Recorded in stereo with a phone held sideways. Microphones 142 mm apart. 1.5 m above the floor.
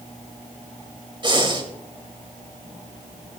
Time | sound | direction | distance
1.2 | breathing | 35° right (ahead or behind) | 2.5 m